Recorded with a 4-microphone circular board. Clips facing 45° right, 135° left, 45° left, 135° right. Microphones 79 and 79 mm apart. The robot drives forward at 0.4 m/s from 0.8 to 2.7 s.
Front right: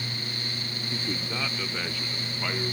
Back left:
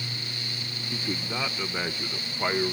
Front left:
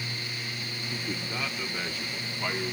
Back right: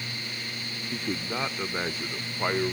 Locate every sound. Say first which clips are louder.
0.9 s a man speaking: back left 2 dB, back right 4 dB; 145° right, 0.8 m; by 2.7 s 170° right, 1.2 m